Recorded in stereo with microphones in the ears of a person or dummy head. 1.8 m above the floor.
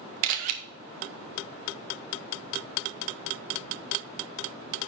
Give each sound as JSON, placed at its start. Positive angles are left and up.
{"t": 0.2, "sound": "a camera shutter", "side_deg": -50, "distance_m": 0.8}